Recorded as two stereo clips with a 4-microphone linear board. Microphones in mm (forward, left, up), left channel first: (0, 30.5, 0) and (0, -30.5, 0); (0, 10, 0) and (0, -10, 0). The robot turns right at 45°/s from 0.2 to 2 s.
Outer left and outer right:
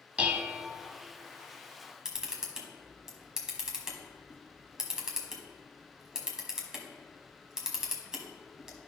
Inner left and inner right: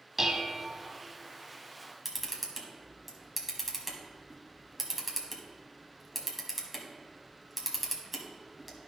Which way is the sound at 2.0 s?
10° right (ahead or behind).